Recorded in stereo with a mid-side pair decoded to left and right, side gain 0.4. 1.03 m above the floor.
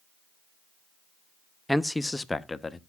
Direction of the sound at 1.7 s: Straight ahead.